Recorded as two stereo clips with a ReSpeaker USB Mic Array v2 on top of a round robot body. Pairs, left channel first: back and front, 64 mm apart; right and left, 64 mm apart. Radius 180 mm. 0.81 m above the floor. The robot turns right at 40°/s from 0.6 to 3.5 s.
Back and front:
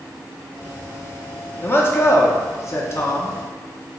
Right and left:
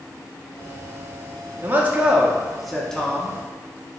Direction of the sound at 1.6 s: 140° left.